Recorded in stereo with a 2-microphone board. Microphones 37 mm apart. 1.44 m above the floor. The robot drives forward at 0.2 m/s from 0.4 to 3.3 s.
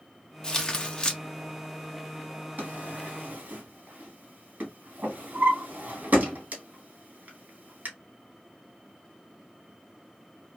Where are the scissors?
I don't hear scissors.